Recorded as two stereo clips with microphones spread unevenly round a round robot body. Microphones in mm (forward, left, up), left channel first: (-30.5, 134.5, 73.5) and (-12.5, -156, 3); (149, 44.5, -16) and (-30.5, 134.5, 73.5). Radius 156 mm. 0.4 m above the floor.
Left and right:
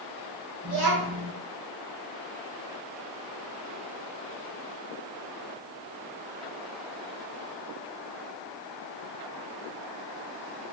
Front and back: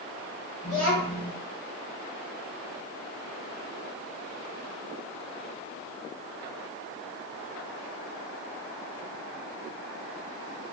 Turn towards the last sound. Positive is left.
turn(degrees=-100)